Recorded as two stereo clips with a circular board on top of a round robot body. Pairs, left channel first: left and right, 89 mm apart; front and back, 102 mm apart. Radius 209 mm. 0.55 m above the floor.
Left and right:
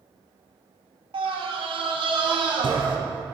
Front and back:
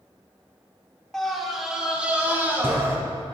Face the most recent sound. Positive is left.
turn(degrees=-115)